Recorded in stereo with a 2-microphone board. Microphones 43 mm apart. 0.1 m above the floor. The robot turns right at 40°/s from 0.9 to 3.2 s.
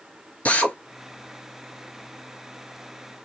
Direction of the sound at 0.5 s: 30° left (ahead or behind).